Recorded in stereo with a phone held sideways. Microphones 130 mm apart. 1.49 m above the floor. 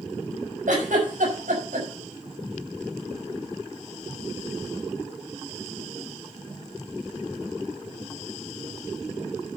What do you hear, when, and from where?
0.7 s a giggle: 85° right, 6 m